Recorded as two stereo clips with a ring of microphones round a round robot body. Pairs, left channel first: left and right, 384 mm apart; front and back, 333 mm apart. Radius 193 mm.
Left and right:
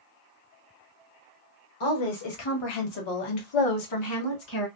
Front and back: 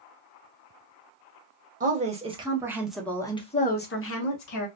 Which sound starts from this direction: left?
A woman speaking, at 1.8 s.